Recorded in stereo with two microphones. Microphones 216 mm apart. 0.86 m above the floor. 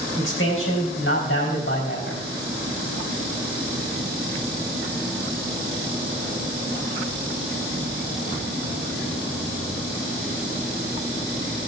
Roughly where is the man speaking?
Left.